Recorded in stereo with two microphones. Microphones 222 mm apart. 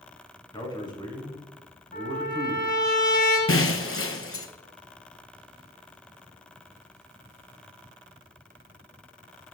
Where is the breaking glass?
70° left (ahead or behind), 0.7 m.